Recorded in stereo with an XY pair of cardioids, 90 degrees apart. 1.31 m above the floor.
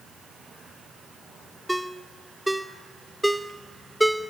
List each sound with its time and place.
1.7 s a ringtone: 5° right, 1.0 m